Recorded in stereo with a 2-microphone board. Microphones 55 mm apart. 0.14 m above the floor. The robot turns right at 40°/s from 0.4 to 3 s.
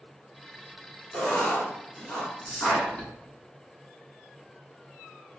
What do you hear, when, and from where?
1.1 s writing: 30° left (ahead or behind), 1.0 m; by 2.9 s 5° left (ahead or behind), 1.0 m
2.4 s whispering: 30° left (ahead or behind), 1.2 m